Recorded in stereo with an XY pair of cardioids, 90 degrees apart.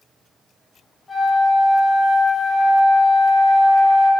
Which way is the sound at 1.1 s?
25° left.